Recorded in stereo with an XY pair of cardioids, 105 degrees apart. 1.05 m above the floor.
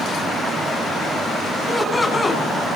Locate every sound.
1.7 s laughter: 20° left, 9.5 m